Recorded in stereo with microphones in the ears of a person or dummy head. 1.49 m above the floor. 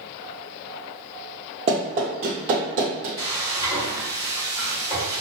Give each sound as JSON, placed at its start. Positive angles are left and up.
{"t": 1.7, "sound": "running footsteps", "side_deg": -15, "distance_m": 1.6}
{"t": 3.2, "sound": "frying", "side_deg": 15, "distance_m": 1.4}